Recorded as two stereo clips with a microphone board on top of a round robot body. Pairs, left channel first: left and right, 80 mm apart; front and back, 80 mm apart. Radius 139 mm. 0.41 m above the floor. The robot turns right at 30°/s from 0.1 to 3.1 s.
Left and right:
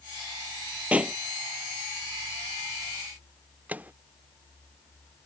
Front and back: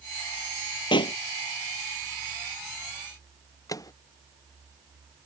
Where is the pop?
20° right; by 1.2 s 10° right.